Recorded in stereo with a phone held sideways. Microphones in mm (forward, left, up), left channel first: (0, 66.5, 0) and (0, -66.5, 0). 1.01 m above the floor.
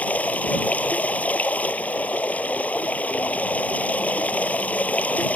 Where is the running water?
10° left (ahead or behind).